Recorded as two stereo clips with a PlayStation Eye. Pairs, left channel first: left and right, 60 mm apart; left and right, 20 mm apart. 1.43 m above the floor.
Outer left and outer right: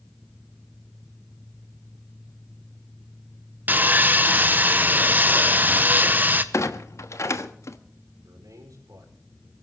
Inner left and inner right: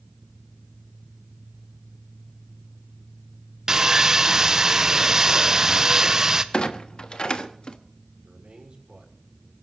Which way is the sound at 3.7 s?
30° right (ahead or behind).